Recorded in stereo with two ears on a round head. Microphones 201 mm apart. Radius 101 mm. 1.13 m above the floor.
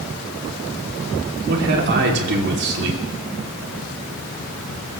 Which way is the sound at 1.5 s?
50° right (ahead or behind).